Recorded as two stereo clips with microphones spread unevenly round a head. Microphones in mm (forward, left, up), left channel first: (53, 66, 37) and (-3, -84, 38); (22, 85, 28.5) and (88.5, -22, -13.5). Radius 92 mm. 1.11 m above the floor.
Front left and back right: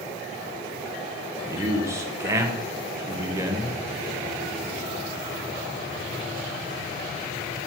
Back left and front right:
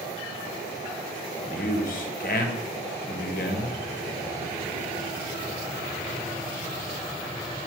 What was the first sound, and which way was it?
A man speaking, 175° left.